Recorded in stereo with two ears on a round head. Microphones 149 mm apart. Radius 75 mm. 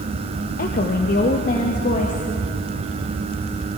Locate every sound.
0.6 s a woman speaking: 50° left (ahead or behind), 1.5 m